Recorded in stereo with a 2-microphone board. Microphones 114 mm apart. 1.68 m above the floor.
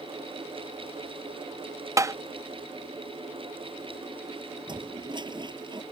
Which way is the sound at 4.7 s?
40° right (ahead or behind).